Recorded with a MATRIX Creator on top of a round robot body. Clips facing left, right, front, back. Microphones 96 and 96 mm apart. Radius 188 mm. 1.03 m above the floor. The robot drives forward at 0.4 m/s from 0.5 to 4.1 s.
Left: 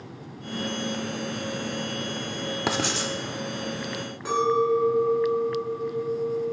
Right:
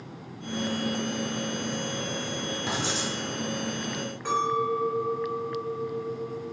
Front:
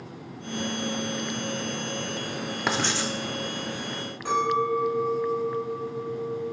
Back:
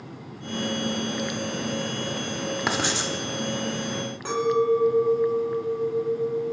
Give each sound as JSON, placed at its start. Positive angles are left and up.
{"t": 2.7, "sound": "writing", "azimuth_deg": 90, "distance_m": 0.5}
{"t": 4.2, "sound": "a clink", "azimuth_deg": 175, "distance_m": 1.9}